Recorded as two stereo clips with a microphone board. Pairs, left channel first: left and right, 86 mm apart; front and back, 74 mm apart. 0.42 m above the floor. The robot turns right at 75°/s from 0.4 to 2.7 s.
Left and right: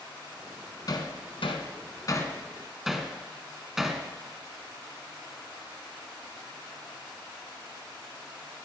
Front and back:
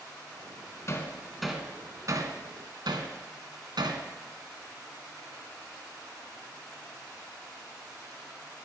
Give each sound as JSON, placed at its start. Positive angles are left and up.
{"t": 0.9, "sound": "hammering", "azimuth_deg": 45, "distance_m": 1.5}